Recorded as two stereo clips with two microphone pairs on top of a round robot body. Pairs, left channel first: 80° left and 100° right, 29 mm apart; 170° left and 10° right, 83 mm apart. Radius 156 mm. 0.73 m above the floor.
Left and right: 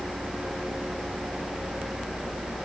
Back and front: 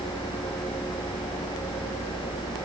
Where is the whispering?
No whispering in this recording.